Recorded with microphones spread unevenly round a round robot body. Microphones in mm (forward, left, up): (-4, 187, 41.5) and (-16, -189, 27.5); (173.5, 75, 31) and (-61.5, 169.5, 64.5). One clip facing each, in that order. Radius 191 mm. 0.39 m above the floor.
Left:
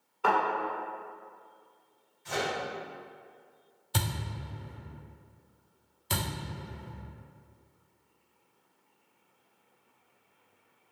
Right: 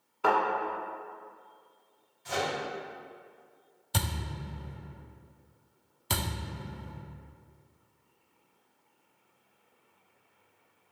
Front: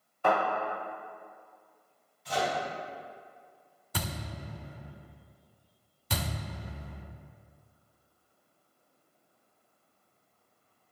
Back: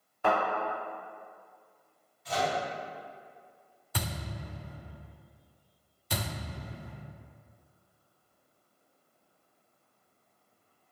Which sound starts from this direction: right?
A thud, at 3.9 s.